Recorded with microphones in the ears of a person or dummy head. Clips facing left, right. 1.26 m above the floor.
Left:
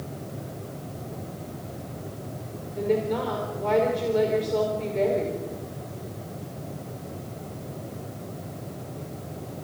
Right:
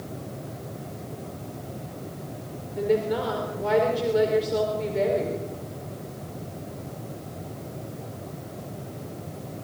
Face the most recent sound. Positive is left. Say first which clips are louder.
# right 1 dB
turn(degrees=-10)  # may be behind; listen again after turning